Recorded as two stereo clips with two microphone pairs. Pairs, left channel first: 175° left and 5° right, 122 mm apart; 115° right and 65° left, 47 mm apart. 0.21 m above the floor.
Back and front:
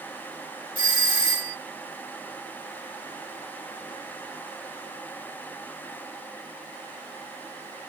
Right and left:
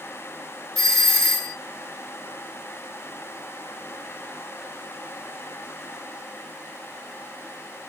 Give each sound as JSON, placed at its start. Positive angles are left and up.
{"t": 0.8, "sound": "a doorbell", "azimuth_deg": 170, "distance_m": 2.5}